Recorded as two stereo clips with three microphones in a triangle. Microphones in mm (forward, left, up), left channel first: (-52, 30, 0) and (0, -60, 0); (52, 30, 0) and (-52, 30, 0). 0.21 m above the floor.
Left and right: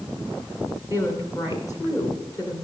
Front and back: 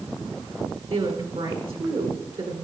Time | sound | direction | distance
0.9 | a woman speaking | 170° left | 2 m